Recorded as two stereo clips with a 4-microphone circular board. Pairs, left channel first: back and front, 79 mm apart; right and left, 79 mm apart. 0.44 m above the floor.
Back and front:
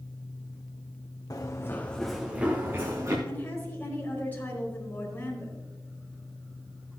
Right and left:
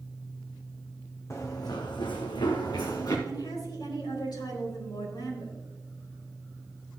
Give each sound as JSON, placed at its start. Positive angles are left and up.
{"t": 1.3, "sound": "running footsteps", "azimuth_deg": -140, "distance_m": 1.5}
{"t": 3.3, "sound": "a woman speaking", "azimuth_deg": -115, "distance_m": 4.0}